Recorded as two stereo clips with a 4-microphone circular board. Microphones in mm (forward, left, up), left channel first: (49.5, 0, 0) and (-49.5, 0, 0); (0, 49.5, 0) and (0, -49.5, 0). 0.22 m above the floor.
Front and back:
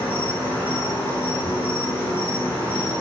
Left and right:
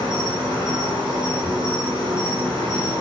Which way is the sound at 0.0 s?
70° right.